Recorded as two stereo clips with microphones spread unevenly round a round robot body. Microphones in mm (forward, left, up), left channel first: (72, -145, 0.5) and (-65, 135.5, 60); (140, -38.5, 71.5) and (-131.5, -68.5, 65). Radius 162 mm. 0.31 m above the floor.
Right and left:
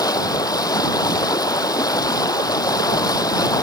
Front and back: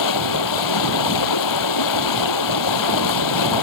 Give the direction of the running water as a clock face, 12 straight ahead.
11 o'clock.